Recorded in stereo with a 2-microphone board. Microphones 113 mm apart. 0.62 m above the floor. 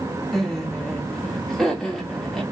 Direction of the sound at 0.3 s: 5° left (ahead or behind).